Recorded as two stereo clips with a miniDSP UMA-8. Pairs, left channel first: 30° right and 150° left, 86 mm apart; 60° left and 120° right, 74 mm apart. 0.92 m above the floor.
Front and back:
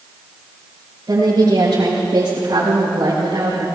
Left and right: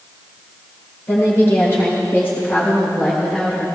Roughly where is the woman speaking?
Left.